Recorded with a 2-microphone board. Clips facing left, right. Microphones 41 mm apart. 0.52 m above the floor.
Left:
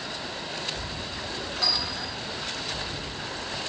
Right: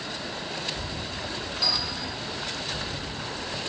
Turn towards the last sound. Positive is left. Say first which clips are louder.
# even
turn(degrees=65)  # may be behind; listen again after turning